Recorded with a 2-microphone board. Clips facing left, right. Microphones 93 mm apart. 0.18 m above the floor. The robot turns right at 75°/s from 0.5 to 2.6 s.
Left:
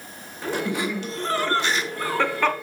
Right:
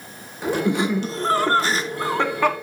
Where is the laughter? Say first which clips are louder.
Right 5 dB; 150° right, 1.3 m; by 2.5 s 10° right, 1.3 m.